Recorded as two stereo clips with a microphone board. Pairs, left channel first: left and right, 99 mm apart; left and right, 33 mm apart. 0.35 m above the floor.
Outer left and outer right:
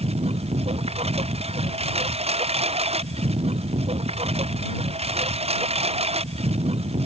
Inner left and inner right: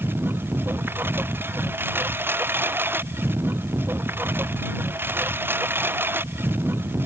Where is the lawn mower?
80° right.